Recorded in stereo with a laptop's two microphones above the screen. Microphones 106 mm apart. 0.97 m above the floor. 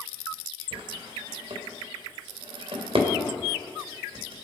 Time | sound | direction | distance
0.7 | a drawer | 70° right (ahead or behind) | 2.5 m